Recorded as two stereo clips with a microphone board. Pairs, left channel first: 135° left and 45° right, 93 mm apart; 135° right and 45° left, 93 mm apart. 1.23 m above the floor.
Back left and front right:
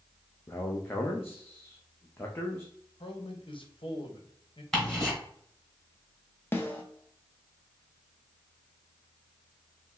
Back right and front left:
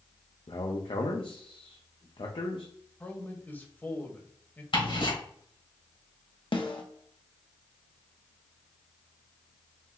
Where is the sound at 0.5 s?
160° right, 0.7 m.